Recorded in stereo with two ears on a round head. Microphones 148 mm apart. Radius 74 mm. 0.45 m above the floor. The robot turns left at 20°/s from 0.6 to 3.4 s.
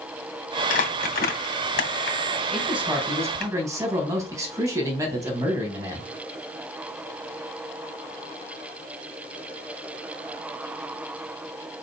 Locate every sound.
0.7 s crumpling: 50° left (ahead or behind), 2.5 m; by 3.5 s 65° left (ahead or behind), 2.5 m
2.5 s a man speaking: centre (ahead or behind), 3.5 m; by 6.0 s 20° right (ahead or behind), 3.5 m